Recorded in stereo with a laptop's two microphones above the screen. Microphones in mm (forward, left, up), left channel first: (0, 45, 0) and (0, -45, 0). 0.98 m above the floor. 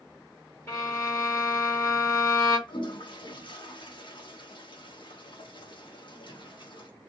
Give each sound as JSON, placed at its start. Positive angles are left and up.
{"t": 0.7, "sound": "a violin", "side_deg": 25, "distance_m": 1.7}
{"t": 2.7, "sound": "a toilet flushing", "side_deg": 60, "distance_m": 0.8}